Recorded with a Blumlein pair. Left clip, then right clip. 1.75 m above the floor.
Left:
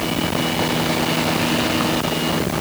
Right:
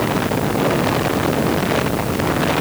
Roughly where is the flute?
I don't hear a flute.